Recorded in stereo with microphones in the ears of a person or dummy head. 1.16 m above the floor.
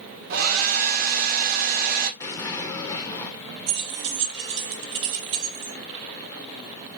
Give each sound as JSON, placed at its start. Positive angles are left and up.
{"t": 0.3, "sound": "a hair dryer", "side_deg": -55, "distance_m": 1.5}
{"t": 2.2, "sound": "an explosion", "side_deg": 15, "distance_m": 0.8}
{"t": 3.7, "sound": "keys jangling", "side_deg": -70, "distance_m": 1.9}